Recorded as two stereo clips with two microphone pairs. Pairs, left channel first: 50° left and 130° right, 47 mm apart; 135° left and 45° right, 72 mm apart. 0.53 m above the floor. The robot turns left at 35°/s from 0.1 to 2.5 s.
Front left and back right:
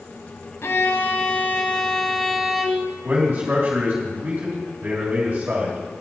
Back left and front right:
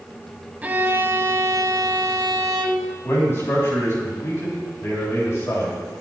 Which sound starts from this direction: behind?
A man speaking, at 3.0 s.